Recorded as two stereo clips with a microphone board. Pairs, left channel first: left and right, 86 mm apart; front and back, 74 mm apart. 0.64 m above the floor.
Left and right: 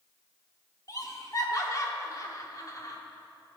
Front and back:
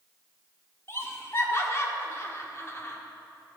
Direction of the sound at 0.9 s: 50° left.